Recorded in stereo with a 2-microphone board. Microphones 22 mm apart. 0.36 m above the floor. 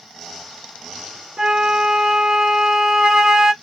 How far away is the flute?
About 0.6 m.